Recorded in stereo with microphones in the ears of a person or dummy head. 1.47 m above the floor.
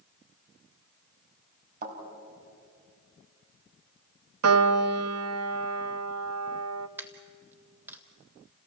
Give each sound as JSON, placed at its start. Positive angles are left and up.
{"t": 1.8, "sound": "a thud", "side_deg": -50, "distance_m": 4.5}
{"t": 4.4, "sound": "a piano", "side_deg": -85, "distance_m": 0.8}
{"t": 7.0, "sound": "a dropped coin", "side_deg": -15, "distance_m": 1.6}